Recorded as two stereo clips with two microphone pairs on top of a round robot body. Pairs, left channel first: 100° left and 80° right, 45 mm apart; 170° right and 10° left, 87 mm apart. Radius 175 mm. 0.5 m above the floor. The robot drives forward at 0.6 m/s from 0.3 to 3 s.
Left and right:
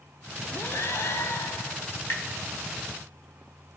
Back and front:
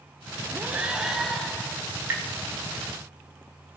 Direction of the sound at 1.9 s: 75° left.